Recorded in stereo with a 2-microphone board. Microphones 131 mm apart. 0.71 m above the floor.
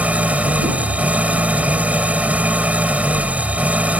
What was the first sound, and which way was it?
An engine running, 10° right (ahead or behind).